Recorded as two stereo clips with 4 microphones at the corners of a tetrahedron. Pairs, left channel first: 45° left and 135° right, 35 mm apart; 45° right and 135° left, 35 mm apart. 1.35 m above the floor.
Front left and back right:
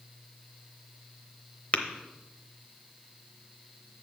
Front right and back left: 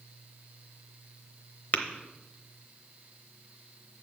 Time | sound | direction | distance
1.7 | tapping | straight ahead | 0.8 m